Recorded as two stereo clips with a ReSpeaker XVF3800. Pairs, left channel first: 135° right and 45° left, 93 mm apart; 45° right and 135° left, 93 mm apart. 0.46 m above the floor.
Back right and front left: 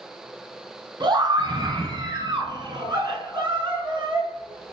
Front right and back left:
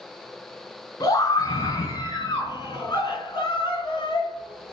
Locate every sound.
1.0 s a scream: 5° left, 3.5 m; by 4.7 s 5° right, 6 m